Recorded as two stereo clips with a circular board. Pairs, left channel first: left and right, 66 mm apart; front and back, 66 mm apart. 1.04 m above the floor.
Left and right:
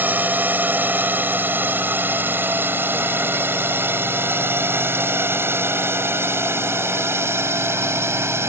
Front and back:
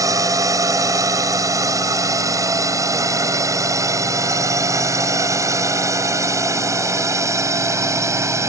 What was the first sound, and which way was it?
A drone, 155° right.